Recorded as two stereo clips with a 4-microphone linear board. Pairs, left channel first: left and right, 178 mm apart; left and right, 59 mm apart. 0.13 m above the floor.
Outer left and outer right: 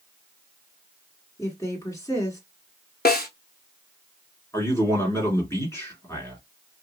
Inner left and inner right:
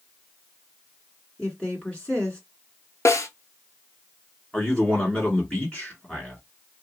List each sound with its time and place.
1.4 s a woman speaking: 20° left (ahead or behind), 1.7 m
3.0 s a snare drum: 60° left (ahead or behind), 0.7 m
4.5 s a man speaking: 15° left (ahead or behind), 1.7 m